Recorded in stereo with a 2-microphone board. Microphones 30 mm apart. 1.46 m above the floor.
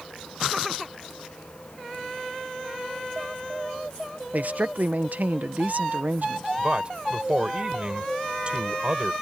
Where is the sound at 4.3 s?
65° right (ahead or behind).